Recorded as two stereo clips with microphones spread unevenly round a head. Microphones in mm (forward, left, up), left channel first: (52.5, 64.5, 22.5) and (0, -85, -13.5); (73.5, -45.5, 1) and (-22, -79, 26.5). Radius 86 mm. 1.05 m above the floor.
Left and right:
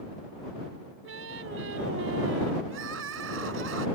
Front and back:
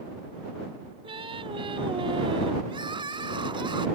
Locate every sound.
1.0 s singing: 125° right
2.7 s crying: 125° right